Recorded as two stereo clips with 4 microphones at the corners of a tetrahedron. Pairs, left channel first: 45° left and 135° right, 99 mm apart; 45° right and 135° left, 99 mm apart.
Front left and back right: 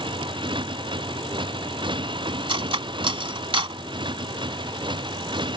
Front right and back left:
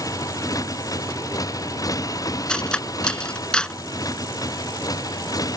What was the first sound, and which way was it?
A motorcycle, 100° right.